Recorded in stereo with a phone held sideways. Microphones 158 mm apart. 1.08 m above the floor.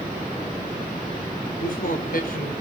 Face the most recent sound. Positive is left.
turn(degrees=65)  # may be behind; listen again after turning